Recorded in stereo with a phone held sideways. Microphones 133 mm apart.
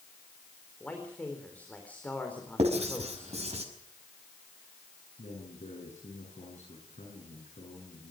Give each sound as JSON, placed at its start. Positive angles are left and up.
{"t": 0.8, "sound": "a man speaking", "side_deg": 10, "distance_m": 4.0}
{"t": 2.6, "sound": "writing", "side_deg": -55, "distance_m": 5.5}
{"t": 5.2, "sound": "a man speaking", "side_deg": 65, "distance_m": 9.0}